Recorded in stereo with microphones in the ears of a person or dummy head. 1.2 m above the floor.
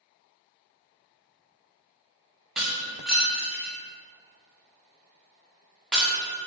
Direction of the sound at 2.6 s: Centre (ahead or behind).